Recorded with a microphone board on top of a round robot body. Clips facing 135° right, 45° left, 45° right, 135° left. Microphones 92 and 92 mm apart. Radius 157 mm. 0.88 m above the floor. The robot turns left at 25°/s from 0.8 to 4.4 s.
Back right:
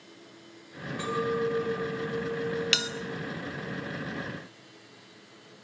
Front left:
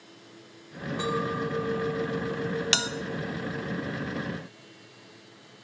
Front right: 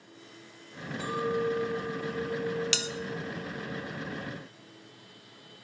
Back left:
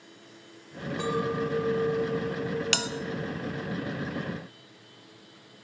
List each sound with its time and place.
1.0 s a clink: 115° left, 2.5 m; by 3.7 s 50° left, 2.5 m
2.7 s a bell: 100° left, 1.1 m